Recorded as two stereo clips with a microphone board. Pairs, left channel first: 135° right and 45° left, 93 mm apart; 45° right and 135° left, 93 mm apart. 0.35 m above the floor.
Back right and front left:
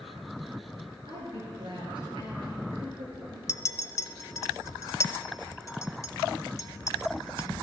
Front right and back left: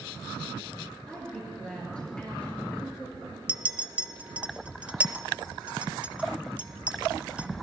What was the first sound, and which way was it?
A woman speaking, 35° left.